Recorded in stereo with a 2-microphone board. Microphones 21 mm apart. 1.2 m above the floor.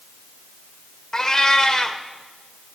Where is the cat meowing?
30° left (ahead or behind), 1.4 m.